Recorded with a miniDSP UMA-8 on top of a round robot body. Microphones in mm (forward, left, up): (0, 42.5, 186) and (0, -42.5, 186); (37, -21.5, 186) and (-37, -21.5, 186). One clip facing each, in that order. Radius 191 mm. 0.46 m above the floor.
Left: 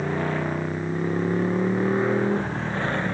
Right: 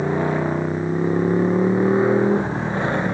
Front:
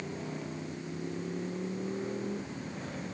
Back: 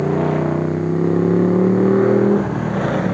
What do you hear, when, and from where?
0.0 s a motorcycle: 165° right